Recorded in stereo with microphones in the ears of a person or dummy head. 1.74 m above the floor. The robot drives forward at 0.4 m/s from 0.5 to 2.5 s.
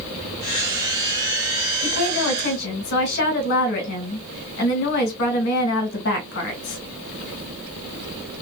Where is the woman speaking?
65° left (ahead or behind), 1.6 m; by 6.8 s 55° left (ahead or behind), 1.7 m.